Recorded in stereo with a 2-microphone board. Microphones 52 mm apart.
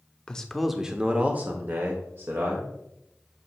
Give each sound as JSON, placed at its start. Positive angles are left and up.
{"t": 0.3, "sound": "a man speaking", "side_deg": 20, "distance_m": 0.8}